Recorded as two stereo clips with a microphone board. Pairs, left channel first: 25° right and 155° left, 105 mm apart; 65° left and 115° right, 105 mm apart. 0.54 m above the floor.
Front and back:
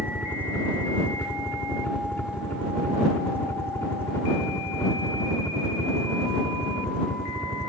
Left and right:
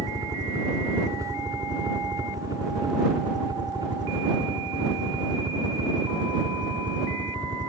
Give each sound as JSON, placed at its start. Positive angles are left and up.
{"t": 0.0, "sound": "a helicopter", "azimuth_deg": -85}